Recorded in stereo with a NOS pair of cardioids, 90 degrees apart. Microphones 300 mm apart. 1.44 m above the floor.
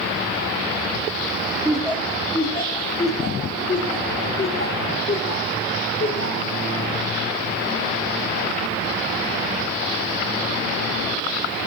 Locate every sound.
1.6 s laughter: straight ahead, 1.2 m; by 6.5 s 35° left, 4.5 m